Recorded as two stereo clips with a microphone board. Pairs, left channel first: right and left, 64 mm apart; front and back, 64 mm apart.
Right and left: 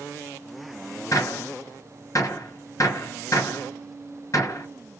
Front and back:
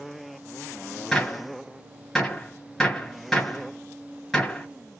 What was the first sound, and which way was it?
A gunshot, 85° right.